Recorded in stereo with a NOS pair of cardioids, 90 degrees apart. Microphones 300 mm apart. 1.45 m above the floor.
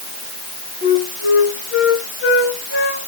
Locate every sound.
0.8 s a flute: 45° left, 4 m